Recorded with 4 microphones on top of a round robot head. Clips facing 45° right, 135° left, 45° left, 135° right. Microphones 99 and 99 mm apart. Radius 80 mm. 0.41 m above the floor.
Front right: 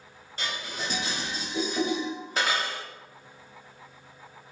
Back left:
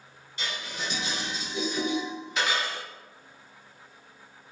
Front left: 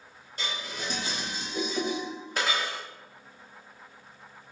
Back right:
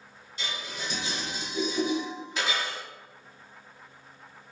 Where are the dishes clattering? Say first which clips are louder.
Front right 1 dB, front left 1 dB; 5° left, 1.4 m.